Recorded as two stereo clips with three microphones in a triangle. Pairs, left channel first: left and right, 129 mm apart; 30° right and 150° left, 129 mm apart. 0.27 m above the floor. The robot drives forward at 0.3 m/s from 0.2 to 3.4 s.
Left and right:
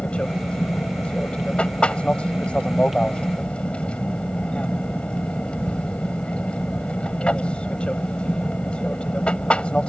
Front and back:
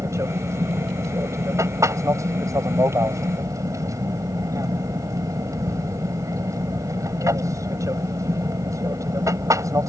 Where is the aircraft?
160° left.